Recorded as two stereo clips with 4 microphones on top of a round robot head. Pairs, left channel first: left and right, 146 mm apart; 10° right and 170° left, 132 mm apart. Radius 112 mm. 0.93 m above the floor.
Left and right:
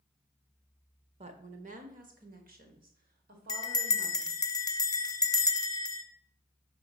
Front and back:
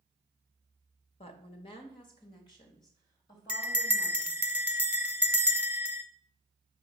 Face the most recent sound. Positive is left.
turn(degrees=105)